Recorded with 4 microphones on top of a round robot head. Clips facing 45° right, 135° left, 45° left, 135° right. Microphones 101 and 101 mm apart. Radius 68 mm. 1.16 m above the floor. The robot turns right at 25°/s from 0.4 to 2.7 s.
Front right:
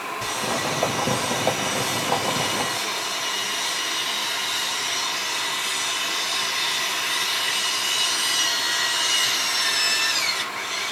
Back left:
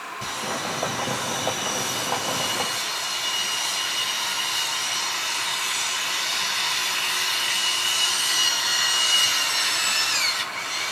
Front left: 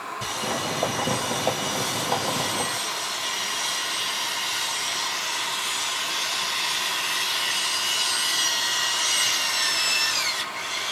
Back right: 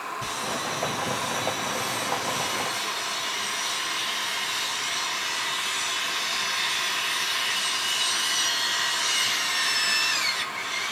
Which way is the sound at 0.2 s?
25° left.